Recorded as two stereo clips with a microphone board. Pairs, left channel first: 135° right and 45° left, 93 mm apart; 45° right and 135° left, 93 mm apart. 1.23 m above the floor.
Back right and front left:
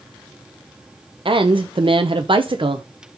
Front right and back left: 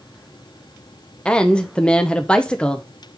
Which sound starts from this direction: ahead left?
A woman speaking, at 1.2 s.